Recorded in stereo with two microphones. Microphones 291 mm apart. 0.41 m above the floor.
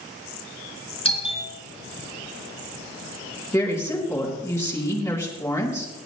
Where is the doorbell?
20° left (ahead or behind), 4 m.